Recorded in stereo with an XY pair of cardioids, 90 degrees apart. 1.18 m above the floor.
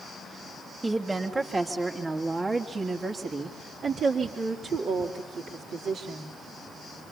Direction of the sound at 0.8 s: 20° right.